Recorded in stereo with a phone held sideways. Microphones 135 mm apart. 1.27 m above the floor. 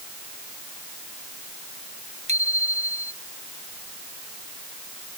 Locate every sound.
2.3 s a bicycle bell: 55° right (ahead or behind)